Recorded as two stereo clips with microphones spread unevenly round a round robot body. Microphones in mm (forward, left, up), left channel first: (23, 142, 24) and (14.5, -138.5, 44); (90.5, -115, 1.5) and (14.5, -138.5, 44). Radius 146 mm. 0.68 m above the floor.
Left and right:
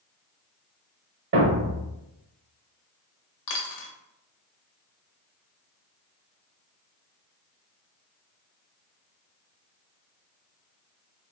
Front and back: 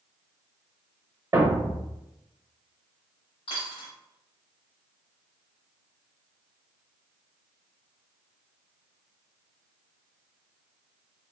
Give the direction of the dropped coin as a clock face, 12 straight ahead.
10 o'clock.